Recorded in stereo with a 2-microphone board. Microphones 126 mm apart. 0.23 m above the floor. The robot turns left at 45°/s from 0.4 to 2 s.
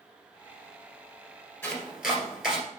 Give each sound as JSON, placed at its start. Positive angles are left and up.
{"t": 1.6, "sound": "chopping", "side_deg": 10, "distance_m": 2.0}